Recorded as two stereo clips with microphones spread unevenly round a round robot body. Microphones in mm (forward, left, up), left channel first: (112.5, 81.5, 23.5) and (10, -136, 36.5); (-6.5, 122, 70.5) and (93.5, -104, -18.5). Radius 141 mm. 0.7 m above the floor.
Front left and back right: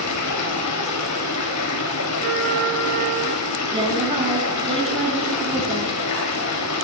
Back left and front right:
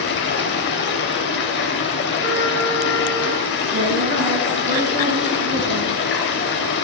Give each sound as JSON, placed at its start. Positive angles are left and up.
{"t": 0.0, "sound": "running water", "azimuth_deg": 65, "distance_m": 3.0}
{"t": 2.2, "sound": "a trumpet", "azimuth_deg": -165, "distance_m": 8.0}
{"t": 3.7, "sound": "a woman speaking", "azimuth_deg": -50, "distance_m": 6.5}